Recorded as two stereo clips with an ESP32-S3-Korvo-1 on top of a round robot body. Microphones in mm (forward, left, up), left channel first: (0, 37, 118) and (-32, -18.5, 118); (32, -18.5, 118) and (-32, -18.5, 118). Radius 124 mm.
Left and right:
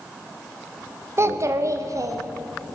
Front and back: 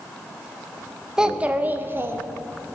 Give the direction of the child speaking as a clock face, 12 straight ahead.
3 o'clock.